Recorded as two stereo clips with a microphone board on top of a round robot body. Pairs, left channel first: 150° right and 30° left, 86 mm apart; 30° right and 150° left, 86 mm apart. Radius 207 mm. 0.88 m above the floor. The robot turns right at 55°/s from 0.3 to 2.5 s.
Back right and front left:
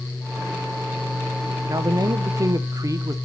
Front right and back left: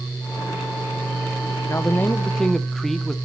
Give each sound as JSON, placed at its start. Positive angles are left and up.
{"t": 1.7, "sound": "a man speaking", "azimuth_deg": 10, "distance_m": 1.1}